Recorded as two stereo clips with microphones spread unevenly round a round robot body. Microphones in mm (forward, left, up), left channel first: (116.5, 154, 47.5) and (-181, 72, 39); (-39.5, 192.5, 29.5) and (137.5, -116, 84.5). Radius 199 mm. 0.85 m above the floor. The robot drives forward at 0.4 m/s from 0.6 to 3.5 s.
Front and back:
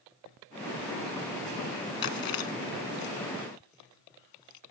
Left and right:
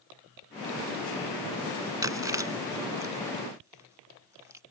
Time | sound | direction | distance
2.0 | chewing | 20° left | ?